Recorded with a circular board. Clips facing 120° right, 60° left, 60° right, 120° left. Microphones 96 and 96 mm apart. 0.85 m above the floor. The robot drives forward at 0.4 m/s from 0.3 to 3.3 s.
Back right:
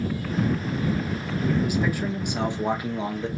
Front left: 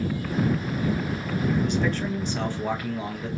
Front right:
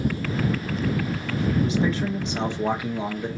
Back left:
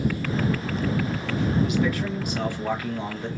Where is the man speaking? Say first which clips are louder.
Even, front right 1 dB; 40° right, 1.0 m; by 3.3 s 125° right, 0.9 m.